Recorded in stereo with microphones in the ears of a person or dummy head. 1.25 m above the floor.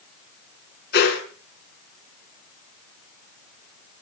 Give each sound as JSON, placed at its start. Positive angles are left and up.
{"t": 0.9, "sound": "a whoosh", "side_deg": 55, "distance_m": 5.5}